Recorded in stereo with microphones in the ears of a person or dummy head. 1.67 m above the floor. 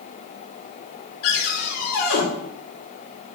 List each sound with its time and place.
1.2 s a cupboard door: 55° left (ahead or behind), 2.5 m